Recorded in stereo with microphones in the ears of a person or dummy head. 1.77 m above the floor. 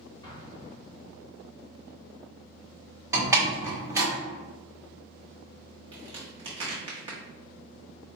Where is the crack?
30° right (ahead or behind), 1.6 m.